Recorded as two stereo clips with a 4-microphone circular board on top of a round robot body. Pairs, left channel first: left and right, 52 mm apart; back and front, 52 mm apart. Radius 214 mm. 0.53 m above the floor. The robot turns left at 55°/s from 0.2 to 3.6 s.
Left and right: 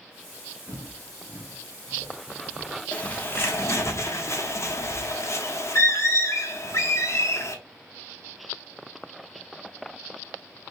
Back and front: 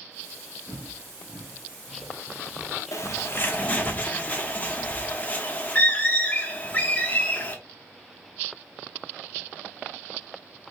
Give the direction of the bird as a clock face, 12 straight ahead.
7 o'clock.